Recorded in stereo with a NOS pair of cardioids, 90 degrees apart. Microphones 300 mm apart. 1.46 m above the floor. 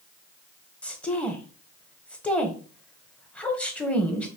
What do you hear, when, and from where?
0.8 s a woman speaking: 5° left, 1.1 m